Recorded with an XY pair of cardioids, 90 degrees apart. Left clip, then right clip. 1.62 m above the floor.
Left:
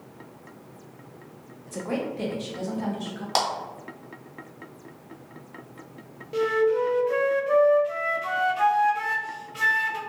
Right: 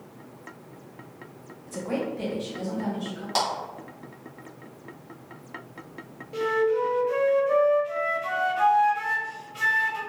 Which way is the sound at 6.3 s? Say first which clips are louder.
Left 1 dB; 35° left.